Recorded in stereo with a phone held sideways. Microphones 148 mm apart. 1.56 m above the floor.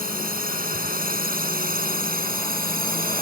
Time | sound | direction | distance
0.0 | a drone | 80° right | ?